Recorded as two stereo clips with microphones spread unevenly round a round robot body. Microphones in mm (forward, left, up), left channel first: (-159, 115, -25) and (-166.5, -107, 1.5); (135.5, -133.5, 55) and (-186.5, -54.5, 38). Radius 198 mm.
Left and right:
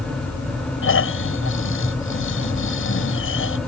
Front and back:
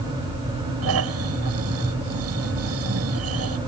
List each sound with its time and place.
0.8 s snoring: 110° left